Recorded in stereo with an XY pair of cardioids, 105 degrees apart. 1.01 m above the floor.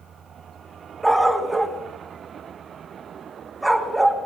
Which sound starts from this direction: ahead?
A dog barking, at 1.0 s.